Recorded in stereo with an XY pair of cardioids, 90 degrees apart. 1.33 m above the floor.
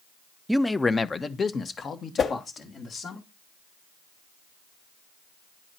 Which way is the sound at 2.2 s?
55° left.